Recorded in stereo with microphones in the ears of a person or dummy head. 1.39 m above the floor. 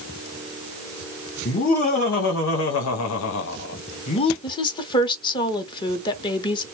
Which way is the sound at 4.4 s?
25° left (ahead or behind).